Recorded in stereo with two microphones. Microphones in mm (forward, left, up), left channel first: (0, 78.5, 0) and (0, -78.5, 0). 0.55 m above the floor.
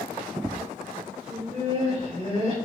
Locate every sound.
1.3 s laughter: 55° right (ahead or behind), 2 m; by 2.5 s 40° right (ahead or behind), 2.5 m